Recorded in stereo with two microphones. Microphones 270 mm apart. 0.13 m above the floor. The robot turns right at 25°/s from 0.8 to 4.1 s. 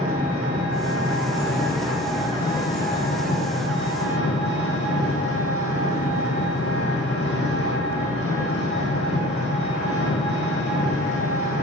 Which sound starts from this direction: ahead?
An engine running, at 0.0 s.